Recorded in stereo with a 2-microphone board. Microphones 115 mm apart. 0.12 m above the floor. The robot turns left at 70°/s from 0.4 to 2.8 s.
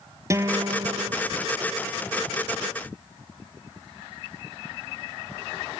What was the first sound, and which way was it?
A guitar, 30° right.